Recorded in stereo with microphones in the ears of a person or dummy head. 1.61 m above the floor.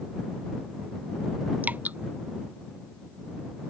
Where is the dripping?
5° right (ahead or behind).